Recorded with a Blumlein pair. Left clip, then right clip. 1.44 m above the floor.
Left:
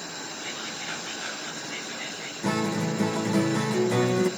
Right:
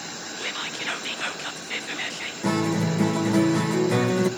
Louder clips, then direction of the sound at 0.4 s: Right 7 dB; 60° right.